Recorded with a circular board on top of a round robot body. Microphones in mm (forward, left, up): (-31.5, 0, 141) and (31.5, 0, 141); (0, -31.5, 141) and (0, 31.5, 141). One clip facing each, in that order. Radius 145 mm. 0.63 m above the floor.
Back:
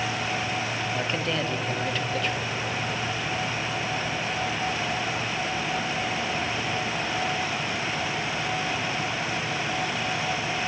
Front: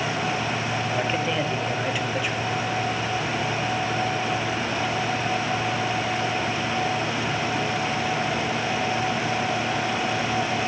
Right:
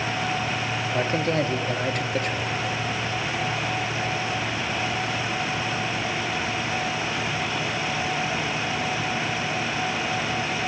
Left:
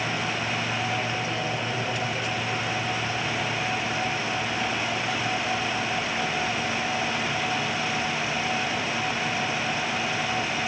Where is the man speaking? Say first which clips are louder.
Front 3 dB, right 5 dB; 80° right, 1.8 m.